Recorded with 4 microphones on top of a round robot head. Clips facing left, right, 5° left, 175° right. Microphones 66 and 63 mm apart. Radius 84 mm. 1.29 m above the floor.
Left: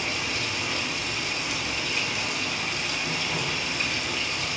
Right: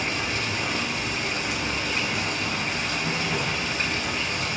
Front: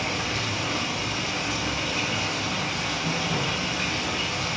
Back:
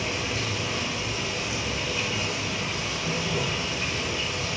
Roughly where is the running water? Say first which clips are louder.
Right 2 dB, front 1 dB; ahead right.